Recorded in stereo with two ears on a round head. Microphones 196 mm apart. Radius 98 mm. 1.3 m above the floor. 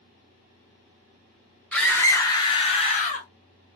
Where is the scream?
5° left (ahead or behind), 1.4 m; by 3.3 s 40° left (ahead or behind), 1.3 m.